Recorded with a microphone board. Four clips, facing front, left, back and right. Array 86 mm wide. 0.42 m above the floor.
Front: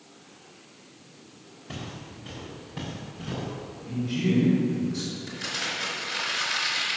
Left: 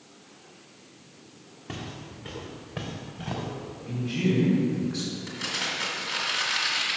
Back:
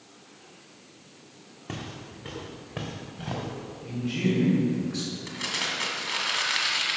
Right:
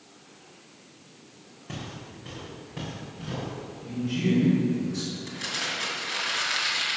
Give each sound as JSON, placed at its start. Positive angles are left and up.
{"t": 1.7, "sound": "footsteps", "azimuth_deg": 170, "distance_m": 2.0}
{"t": 3.9, "sound": "a man speaking", "azimuth_deg": 170, "distance_m": 2.5}
{"t": 5.3, "sound": "crumpling", "azimuth_deg": 180, "distance_m": 2.0}